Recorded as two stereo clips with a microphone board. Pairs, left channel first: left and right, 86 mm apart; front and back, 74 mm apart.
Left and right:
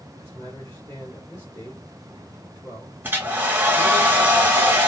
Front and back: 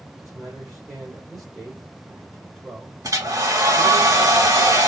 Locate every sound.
0.2 s a man speaking: 95° left, 1.7 m
3.0 s a hair dryer: 155° right, 0.9 m